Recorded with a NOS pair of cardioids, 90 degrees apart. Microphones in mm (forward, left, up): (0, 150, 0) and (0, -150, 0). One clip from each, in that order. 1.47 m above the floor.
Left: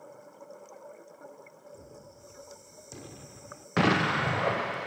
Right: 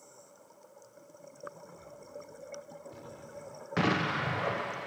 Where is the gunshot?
55° left.